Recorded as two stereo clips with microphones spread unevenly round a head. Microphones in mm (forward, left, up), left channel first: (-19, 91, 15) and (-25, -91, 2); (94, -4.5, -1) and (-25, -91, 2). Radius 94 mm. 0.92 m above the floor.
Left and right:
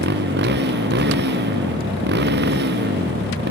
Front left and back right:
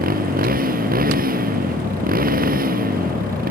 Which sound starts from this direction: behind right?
A motorcycle, at 0.0 s.